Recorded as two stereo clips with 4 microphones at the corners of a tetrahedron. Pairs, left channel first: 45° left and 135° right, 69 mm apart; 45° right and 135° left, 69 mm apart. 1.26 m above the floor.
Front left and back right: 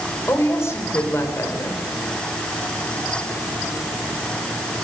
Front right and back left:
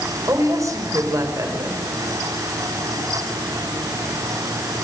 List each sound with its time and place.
0.3 s a woman speaking: 95° left, 5 m